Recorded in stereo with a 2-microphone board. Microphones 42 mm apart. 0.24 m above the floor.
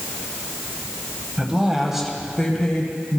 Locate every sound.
1.4 s a woman speaking: 25° right (ahead or behind), 1.1 m; by 3.2 s 30° left (ahead or behind), 1.2 m